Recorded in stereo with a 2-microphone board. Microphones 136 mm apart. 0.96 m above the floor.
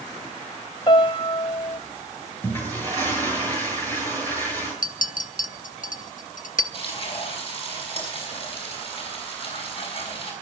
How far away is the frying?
About 6 m.